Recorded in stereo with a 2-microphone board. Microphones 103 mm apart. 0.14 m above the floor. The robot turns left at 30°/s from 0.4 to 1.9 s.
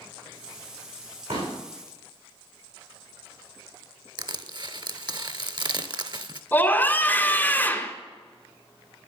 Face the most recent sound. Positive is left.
turn(degrees=20)  # may be behind; listen again after turning